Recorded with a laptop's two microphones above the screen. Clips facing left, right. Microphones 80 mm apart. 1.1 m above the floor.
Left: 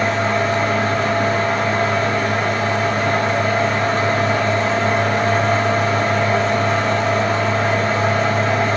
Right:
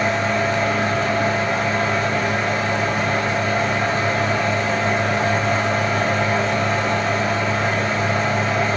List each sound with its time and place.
0.0 s a fan: 45° left (ahead or behind), 2 m